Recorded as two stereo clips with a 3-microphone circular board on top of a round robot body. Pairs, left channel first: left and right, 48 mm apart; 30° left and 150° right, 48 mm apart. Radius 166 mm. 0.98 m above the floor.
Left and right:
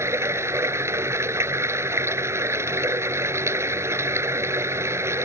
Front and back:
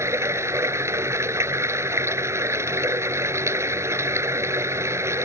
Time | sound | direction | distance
0.0 | running water | 120° right | ?